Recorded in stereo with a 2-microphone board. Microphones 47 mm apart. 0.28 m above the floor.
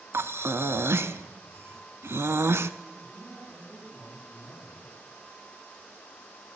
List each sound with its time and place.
0.1 s breathing: 60° right (ahead or behind), 0.5 m
3.0 s a man speaking: 10° right (ahead or behind), 7 m